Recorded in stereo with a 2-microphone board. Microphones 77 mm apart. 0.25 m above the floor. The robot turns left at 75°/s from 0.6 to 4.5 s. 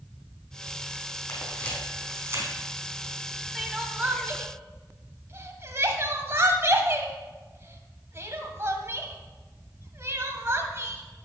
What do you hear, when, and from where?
1.3 s a camera shutter: 40° left (ahead or behind), 4 m; by 2.5 s 55° right (ahead or behind), 4 m
3.5 s crying: centre (ahead or behind), 1.3 m; by 11.0 s 35° right (ahead or behind), 1.3 m